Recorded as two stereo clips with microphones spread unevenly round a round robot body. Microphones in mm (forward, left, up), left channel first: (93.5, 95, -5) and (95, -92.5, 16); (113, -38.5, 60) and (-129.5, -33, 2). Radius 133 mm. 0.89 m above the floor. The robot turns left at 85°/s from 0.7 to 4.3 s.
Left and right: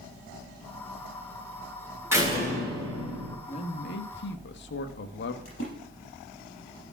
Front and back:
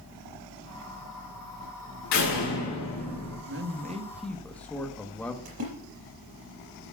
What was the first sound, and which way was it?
A door slam, 10° right.